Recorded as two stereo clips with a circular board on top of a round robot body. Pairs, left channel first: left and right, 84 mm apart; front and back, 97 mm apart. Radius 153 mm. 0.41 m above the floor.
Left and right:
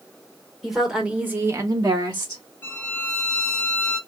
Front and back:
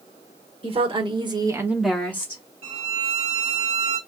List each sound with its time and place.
0.6 s a woman speaking: straight behind, 1.8 m; by 2.4 s 55° right, 1.4 m
2.6 s a violin: 160° left, 1.5 m